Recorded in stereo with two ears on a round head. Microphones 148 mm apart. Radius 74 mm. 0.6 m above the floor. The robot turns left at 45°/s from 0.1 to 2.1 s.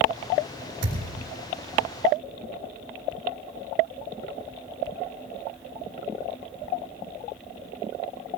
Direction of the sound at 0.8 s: 70° right (ahead or behind).